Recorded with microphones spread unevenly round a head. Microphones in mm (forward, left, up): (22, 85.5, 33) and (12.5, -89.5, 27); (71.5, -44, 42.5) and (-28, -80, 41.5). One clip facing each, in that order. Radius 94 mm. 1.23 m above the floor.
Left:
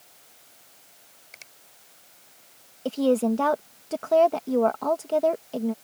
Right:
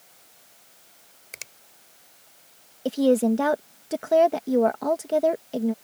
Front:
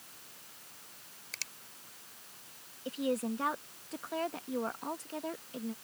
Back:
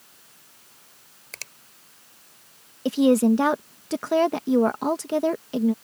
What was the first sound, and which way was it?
A finger snap, 125° right.